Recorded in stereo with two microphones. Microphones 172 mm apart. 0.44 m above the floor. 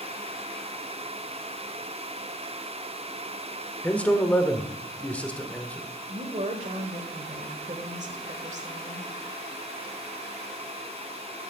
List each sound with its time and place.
3.8 s a man speaking: 10° left (ahead or behind), 1.1 m
6.1 s a woman speaking: 45° right (ahead or behind), 1.5 m